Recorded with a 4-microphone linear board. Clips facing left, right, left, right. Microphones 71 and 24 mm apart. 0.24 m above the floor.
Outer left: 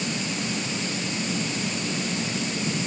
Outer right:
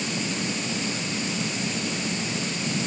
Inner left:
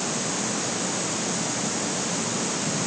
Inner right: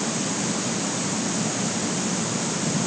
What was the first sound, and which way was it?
Only background noise.